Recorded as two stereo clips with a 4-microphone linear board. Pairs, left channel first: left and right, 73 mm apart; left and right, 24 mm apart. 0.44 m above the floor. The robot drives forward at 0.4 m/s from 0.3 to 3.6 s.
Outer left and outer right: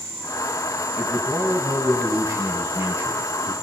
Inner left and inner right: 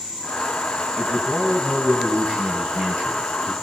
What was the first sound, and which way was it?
A man speaking, 40° right (ahead or behind).